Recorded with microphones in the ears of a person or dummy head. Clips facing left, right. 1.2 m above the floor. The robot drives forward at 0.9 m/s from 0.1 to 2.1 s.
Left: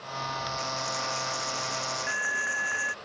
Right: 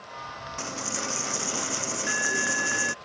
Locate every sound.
0.6 s a dropped coin: 55° right (ahead or behind)